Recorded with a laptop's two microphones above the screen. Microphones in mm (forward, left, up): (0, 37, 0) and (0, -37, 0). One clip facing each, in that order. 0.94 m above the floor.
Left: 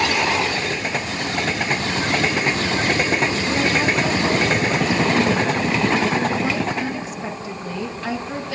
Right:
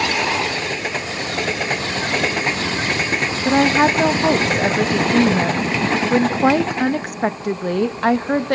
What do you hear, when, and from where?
3.5 s a woman speaking: 60° right (ahead or behind), 1.0 m